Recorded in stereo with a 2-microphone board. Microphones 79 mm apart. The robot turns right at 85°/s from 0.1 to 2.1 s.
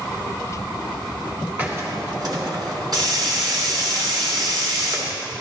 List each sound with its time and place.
1.6 s a hiss: 155° right, 2.5 m; by 5.1 s 115° right, 2.5 m